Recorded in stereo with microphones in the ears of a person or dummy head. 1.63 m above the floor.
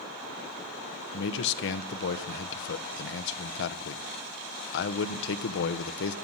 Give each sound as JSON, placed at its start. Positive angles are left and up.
{"t": 1.1, "sound": "a man speaking", "side_deg": 70, "distance_m": 1.2}